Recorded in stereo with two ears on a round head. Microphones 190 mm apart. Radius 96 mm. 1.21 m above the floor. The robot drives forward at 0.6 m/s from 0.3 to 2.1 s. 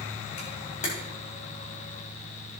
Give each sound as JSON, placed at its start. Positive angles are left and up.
{"t": 0.4, "sound": "a camera shutter", "side_deg": 30, "distance_m": 3.5}